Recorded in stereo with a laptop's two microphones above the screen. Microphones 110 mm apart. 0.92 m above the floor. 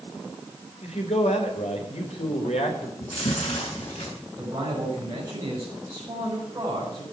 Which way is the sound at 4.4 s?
30° right (ahead or behind).